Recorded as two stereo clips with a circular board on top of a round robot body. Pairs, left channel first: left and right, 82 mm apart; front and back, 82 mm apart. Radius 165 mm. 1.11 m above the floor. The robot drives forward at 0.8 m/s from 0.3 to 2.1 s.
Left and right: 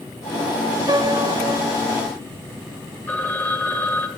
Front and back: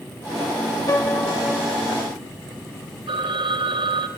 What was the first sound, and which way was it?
A piano, 50° right.